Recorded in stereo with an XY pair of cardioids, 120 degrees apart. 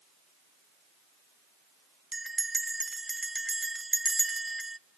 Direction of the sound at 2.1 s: 15° right.